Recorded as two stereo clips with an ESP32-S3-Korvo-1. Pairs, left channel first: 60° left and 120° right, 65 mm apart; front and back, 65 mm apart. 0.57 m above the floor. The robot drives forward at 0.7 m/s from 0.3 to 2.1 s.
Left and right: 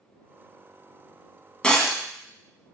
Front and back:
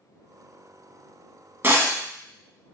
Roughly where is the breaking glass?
Behind left.